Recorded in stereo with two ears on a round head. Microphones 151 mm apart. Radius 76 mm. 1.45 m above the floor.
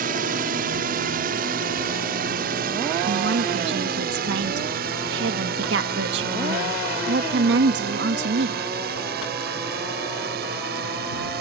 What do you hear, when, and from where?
0.0 s a drone: 55° right (ahead or behind); by 11.4 s 65° right (ahead or behind)
3.0 s a woman speaking: 75° right (ahead or behind)